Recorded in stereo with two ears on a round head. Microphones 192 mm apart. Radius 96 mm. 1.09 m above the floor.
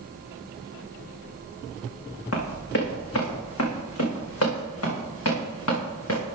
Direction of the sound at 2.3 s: 70° left (ahead or behind).